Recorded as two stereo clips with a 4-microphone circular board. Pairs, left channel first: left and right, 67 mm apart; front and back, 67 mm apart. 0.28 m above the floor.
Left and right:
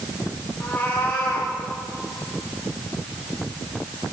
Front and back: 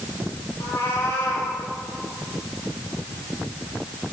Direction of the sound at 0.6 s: 30° left.